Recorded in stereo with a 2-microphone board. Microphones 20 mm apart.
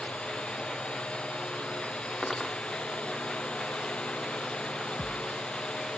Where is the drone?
70° left (ahead or behind).